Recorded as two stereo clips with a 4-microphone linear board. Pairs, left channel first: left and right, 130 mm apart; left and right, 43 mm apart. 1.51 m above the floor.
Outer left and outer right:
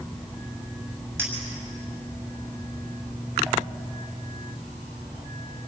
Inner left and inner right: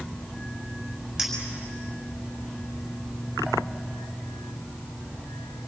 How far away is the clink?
About 6.5 m.